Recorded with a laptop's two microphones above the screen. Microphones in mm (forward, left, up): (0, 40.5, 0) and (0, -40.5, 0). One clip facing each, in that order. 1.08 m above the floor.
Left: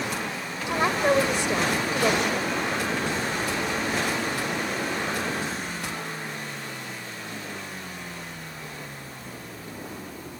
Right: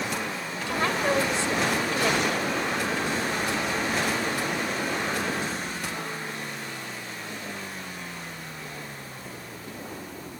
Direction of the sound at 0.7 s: 15° left (ahead or behind).